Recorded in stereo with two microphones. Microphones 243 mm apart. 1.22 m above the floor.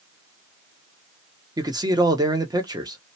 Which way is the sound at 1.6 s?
15° right (ahead or behind).